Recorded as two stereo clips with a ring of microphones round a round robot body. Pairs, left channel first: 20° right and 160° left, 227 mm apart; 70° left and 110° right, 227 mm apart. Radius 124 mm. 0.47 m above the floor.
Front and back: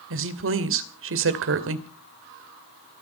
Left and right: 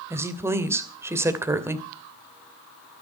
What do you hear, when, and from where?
0.1 s a woman speaking: 170° left, 2.5 m